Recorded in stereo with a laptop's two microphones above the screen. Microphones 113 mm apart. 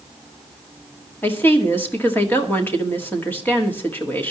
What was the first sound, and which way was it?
A woman speaking, 15° left (ahead or behind).